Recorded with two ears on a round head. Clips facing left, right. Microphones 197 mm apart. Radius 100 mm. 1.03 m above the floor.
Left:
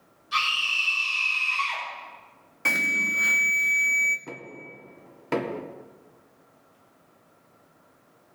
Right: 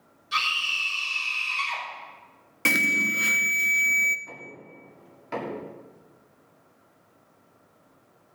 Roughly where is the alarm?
Right.